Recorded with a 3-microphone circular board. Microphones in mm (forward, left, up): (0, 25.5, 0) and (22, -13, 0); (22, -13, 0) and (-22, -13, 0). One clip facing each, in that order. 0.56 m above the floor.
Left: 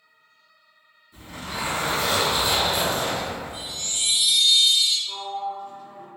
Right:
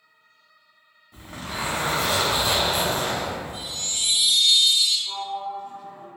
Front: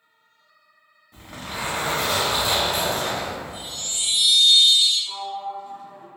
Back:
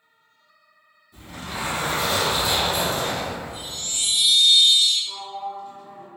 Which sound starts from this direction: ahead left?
A chime, at 3.5 s.